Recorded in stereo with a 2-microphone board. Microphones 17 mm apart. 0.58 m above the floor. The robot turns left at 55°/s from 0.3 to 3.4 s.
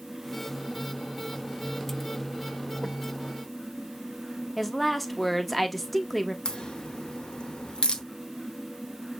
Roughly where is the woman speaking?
Centre.